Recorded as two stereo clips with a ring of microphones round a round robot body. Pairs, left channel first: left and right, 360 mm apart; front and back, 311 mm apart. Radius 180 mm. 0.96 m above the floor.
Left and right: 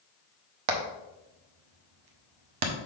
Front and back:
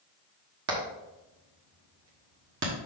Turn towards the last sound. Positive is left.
turn(degrees=-120)